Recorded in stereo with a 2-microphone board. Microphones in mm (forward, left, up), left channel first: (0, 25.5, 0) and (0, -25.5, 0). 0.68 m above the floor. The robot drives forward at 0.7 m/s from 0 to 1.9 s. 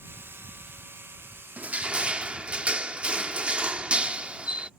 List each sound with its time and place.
1.6 s crushing: 35° right (ahead or behind); by 4.7 s 25° right (ahead or behind)